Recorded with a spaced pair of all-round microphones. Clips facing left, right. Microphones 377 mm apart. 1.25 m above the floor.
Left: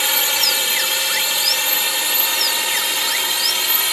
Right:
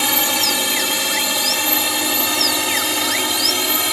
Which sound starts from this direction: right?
A drone, at 0.0 s.